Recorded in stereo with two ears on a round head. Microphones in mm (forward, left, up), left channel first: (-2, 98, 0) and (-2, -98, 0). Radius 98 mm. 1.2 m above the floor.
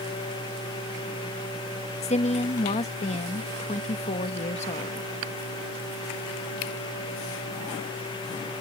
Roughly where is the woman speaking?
Left.